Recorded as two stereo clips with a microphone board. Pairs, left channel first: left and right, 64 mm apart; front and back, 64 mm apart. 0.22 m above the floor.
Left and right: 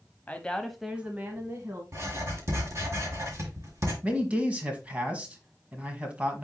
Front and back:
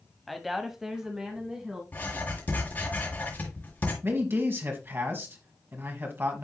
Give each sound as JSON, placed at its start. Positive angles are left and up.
{"t": 0.3, "sound": "a woman speaking", "azimuth_deg": 90, "distance_m": 1.0}
{"t": 1.9, "sound": "writing", "azimuth_deg": -55, "distance_m": 3.5}
{"t": 4.0, "sound": "a man speaking", "azimuth_deg": -145, "distance_m": 1.4}